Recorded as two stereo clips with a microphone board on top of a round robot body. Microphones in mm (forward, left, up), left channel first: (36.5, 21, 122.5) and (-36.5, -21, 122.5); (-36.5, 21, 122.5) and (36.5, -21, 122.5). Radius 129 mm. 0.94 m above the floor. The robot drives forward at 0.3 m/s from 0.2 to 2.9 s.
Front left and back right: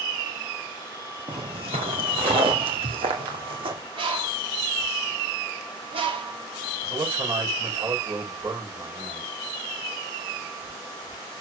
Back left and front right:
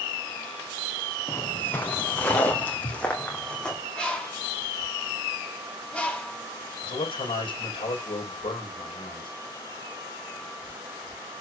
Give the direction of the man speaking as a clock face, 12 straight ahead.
7 o'clock.